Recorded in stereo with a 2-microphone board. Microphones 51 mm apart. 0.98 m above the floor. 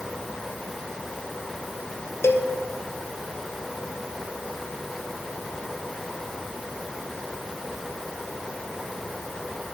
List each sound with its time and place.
2.2 s a cowbell: 55° left (ahead or behind), 0.7 m